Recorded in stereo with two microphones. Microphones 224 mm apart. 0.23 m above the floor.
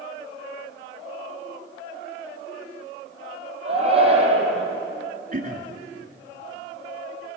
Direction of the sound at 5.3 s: 40° right (ahead or behind).